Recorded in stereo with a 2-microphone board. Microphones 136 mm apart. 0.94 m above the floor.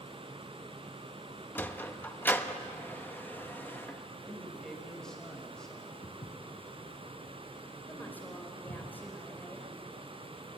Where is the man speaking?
5° left (ahead or behind), 6 m.